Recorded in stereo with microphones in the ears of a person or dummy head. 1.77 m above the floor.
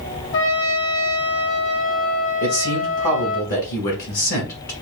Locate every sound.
0.3 s a trumpet: 65° left (ahead or behind), 0.9 m
2.4 s a man speaking: 45° left (ahead or behind), 1.0 m